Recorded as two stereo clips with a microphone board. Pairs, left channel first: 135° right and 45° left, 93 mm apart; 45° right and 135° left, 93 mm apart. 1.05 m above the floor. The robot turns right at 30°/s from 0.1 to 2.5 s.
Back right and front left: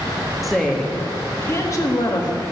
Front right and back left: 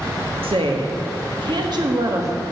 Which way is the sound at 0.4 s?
135° left.